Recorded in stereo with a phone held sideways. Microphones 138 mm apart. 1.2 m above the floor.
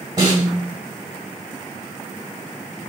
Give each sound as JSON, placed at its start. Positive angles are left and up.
{"t": 0.2, "sound": "a snare drum", "side_deg": -30, "distance_m": 1.5}